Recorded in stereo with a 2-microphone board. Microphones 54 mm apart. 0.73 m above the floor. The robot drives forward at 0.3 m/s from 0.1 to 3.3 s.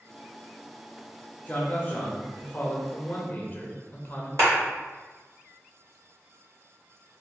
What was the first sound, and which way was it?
A man speaking, 30° left (ahead or behind).